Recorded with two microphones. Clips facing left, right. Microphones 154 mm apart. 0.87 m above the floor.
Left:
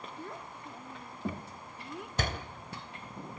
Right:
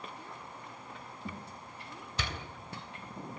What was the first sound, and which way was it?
A child speaking, 70° left (ahead or behind).